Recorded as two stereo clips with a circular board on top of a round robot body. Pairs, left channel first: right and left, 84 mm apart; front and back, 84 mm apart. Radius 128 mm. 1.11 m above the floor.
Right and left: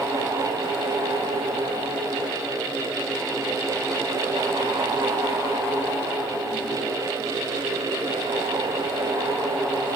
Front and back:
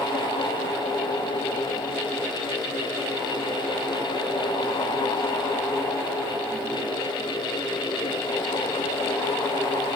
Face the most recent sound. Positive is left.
No sound to turn to.